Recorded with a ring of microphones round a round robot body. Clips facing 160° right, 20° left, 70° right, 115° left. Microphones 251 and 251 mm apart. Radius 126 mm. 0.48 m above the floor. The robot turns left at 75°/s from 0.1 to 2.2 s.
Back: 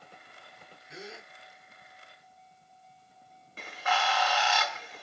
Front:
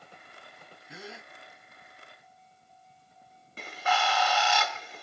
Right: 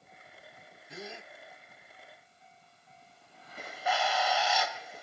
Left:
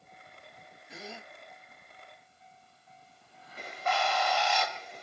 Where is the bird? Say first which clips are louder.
Front 2 dB, even; 15° left, 0.6 m.